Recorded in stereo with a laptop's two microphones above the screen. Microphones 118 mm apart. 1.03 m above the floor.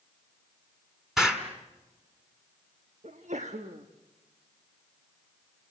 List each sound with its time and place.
1.2 s an explosion: 5° right (ahead or behind), 3 m
3.0 s a sneeze: 80° right, 1.4 m